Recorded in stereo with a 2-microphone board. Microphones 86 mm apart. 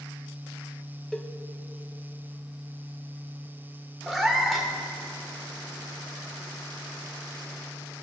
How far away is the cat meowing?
About 1.0 m.